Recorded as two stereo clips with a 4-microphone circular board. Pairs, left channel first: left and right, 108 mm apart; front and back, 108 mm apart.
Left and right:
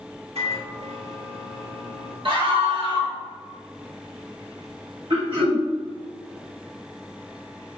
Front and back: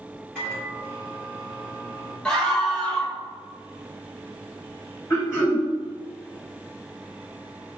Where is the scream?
80° right, 1.1 m.